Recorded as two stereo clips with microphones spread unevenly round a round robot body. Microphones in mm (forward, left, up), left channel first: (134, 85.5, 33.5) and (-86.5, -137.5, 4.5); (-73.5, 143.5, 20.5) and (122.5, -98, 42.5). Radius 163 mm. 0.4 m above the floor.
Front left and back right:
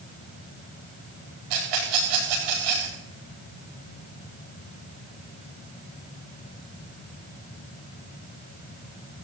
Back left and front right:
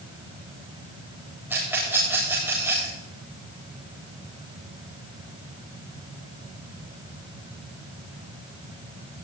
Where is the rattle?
135° right, 10 m.